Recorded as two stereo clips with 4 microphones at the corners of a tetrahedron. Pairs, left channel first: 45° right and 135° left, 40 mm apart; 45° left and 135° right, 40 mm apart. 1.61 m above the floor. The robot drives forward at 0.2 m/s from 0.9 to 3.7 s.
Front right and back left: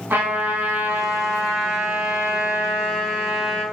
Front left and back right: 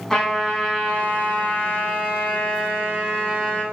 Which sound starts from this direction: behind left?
A trumpet, at 0.1 s.